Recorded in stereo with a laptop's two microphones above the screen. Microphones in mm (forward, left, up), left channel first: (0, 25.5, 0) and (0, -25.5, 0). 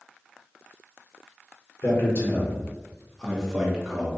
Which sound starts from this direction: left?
A man speaking, at 1.8 s.